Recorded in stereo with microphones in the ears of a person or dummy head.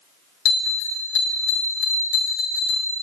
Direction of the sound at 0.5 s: 80° left.